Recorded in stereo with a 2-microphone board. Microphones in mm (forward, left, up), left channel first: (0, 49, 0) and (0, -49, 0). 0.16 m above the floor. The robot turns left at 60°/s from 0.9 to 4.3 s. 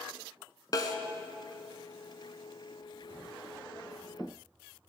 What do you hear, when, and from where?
0.7 s a snare drum: 40° left (ahead or behind), 0.7 m